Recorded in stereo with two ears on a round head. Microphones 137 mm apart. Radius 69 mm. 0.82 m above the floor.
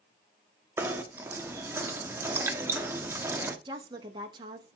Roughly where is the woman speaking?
Right.